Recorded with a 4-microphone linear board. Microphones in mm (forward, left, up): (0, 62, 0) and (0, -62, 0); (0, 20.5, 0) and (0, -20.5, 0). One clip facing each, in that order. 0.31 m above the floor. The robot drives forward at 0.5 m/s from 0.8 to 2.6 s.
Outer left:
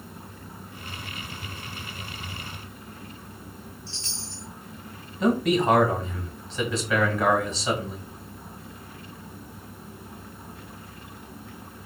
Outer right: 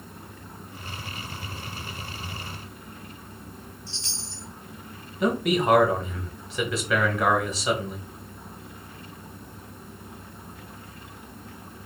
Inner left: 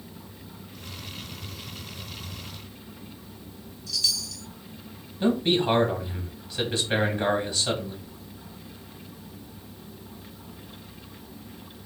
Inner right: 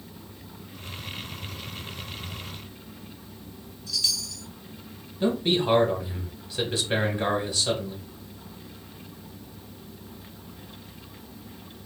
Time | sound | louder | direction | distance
3.9 | a chime | even, even | 20° right (ahead or behind) | 1.7 m
5.2 | a man speaking | outer left 2 dB, inner left 1 dB | 5° right (ahead or behind) | 1.0 m